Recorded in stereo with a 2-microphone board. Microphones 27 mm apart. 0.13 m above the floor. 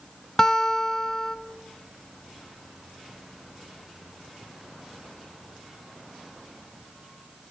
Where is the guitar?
20° left (ahead or behind), 0.7 m.